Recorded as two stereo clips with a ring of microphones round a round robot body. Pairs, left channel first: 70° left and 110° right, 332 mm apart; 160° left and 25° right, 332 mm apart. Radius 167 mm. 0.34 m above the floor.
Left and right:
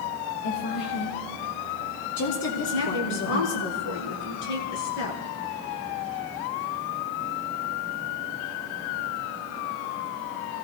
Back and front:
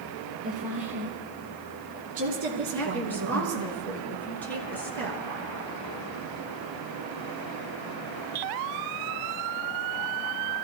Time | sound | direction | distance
0.4 | a woman speaking | 65° left | 5.5 m
2.5 | a woman speaking | 75° left | 5 m